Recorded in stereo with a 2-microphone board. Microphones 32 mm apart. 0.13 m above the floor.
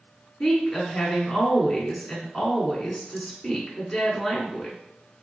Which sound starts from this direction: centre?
A woman speaking, at 0.4 s.